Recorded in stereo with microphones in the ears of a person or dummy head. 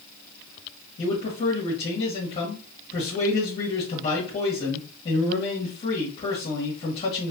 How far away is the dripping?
I don't hear dripping.